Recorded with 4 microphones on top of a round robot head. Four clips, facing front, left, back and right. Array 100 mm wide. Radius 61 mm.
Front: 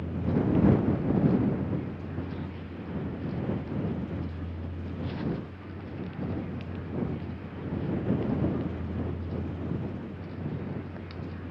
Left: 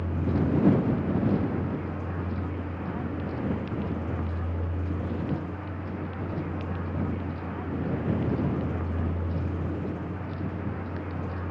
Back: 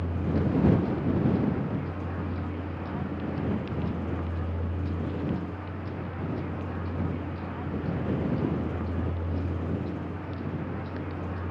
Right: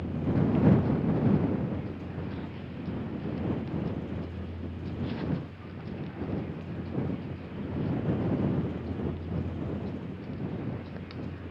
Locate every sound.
0.0 s a vehicle: 130° left